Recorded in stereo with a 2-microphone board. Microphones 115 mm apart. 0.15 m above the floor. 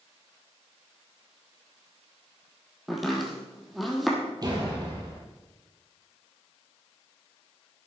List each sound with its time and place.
2.9 s chopping: centre (ahead or behind), 2.5 m
4.4 s a door slam: 35° right (ahead or behind), 3 m